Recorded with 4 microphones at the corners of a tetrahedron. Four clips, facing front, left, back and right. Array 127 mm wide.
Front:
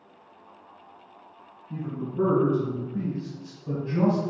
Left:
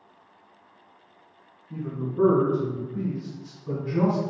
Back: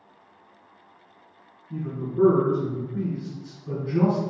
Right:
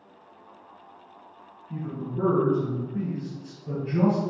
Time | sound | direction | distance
1.7 | a man speaking | 20° right | 1.8 m